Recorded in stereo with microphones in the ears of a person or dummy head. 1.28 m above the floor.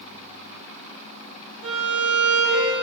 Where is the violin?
30° right (ahead or behind), 3.5 m.